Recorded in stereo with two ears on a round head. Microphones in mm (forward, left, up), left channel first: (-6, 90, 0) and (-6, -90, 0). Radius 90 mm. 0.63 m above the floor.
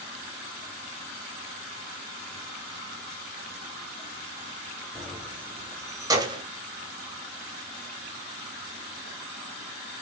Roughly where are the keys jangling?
Centre.